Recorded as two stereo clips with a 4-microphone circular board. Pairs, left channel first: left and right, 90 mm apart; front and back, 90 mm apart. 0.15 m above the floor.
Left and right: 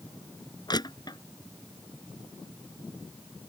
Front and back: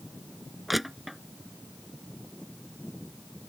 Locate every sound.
0.7 s crushing: 90° left